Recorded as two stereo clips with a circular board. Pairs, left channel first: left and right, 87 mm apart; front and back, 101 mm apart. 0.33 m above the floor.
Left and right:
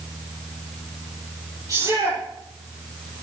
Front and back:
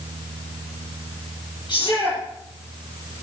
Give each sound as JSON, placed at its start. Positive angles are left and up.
{"t": 1.7, "sound": "a shout", "azimuth_deg": -40, "distance_m": 9.5}